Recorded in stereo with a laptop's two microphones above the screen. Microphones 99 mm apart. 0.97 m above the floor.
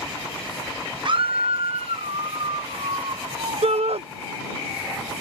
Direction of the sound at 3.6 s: 75° right (ahead or behind).